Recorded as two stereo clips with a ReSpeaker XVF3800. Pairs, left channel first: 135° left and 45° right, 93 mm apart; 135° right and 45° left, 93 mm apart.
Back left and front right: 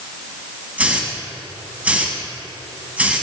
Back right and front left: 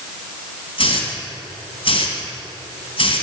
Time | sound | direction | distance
0.8 | a hiss | 120° right | 1.9 m